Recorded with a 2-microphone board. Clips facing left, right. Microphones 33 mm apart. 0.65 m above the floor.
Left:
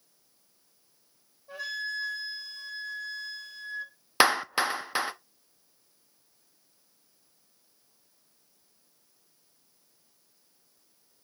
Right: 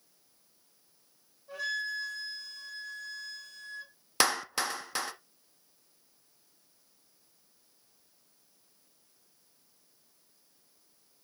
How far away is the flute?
About 4.5 m.